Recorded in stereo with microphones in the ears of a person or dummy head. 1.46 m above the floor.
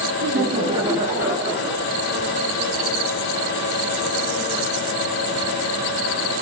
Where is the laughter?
50° right (ahead or behind), 0.8 m; by 1.9 s 5° right (ahead or behind), 1.5 m.